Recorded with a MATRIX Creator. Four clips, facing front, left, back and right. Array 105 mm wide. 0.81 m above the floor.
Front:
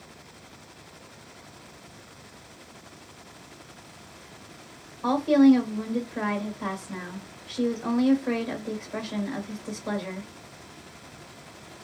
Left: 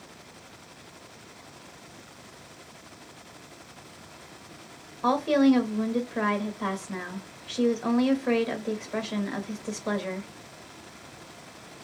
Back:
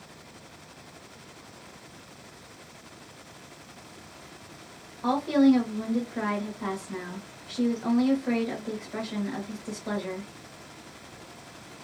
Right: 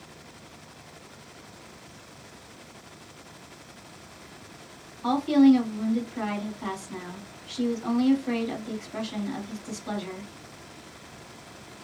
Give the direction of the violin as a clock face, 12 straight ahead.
No violin in this recording.